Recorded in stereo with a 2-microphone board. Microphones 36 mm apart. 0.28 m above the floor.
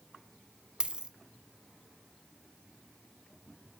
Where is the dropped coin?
25° right (ahead or behind), 0.6 m.